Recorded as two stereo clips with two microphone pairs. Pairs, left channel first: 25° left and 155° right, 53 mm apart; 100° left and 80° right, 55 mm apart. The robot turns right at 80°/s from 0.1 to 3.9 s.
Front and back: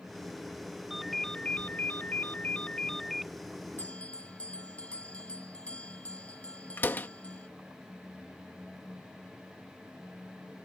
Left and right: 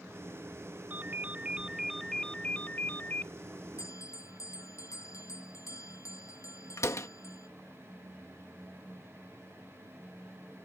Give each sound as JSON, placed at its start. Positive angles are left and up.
{"t": 0.9, "sound": "a ringtone", "azimuth_deg": -70}
{"t": 3.8, "sound": "a bell", "azimuth_deg": 80}
{"t": 6.8, "sound": "a door slam", "azimuth_deg": 75}